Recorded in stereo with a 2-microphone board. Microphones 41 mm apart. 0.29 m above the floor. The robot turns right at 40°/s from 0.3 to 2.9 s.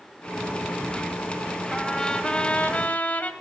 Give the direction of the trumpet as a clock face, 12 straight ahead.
12 o'clock.